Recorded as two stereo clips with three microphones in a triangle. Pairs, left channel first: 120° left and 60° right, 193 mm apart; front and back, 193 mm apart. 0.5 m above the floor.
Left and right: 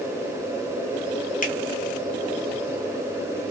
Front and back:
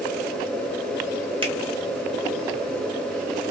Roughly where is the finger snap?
Behind left.